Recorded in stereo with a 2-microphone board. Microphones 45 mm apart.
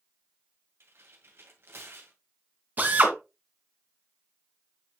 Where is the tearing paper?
65° right (ahead or behind), 2 m.